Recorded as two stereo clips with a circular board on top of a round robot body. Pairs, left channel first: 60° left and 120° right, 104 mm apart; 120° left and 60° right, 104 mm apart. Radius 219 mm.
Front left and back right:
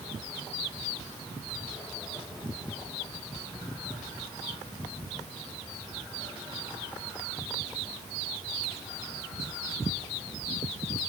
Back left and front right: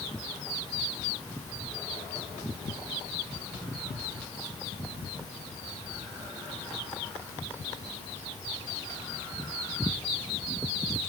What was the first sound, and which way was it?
Only background noise.